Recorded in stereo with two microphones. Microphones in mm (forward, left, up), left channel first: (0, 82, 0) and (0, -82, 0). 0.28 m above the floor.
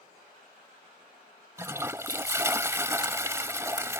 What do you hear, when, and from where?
1.6 s a toilet flushing: 15° right (ahead or behind)